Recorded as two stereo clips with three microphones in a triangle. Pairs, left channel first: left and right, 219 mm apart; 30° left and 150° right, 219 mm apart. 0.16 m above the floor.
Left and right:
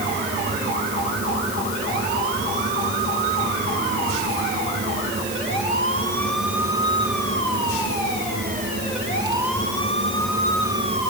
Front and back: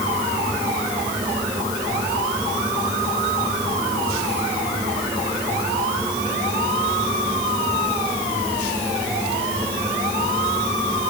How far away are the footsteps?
I don't hear footsteps.